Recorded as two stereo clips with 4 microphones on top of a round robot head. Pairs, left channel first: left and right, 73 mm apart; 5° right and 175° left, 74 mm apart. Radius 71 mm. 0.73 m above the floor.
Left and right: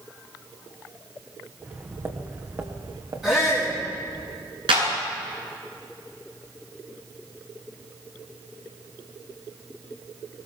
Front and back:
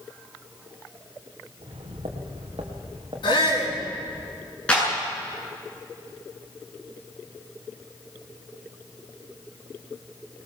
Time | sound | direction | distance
1.6 | footsteps | 160° right | 3 m
3.2 | a shout | 5° right | 10 m
4.7 | a clap | 85° right | 9 m